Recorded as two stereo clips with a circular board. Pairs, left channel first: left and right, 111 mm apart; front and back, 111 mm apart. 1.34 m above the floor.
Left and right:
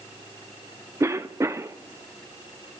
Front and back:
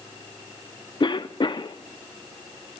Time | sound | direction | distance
1.0 | a cough | 30° right | 0.7 m